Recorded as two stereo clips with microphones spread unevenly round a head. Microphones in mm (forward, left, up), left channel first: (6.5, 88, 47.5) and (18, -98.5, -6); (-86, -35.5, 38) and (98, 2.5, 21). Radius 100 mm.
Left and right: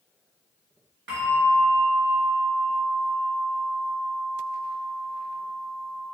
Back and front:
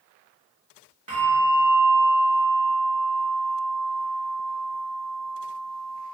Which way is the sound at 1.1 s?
50° right.